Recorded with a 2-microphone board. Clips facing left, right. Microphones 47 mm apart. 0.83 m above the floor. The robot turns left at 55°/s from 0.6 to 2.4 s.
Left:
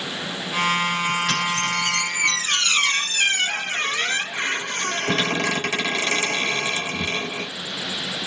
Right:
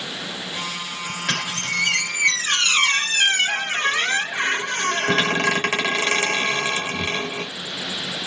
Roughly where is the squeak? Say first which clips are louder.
Left 2 dB; right.